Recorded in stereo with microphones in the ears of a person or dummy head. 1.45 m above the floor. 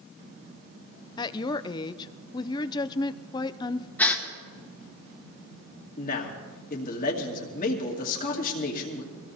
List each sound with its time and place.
1.2 s a woman speaking: 30° left (ahead or behind), 0.5 m
4.0 s a gasp: 10° left (ahead or behind), 1.6 m
6.0 s a man speaking: 50° left (ahead or behind), 2.5 m